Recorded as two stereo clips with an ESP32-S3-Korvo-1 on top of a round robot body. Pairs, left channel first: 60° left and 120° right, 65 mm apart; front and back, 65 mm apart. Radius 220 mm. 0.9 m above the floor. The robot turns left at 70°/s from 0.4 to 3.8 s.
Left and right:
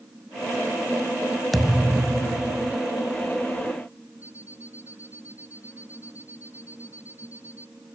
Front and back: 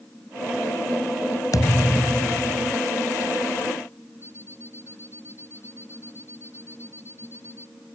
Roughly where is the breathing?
I don't hear breathing.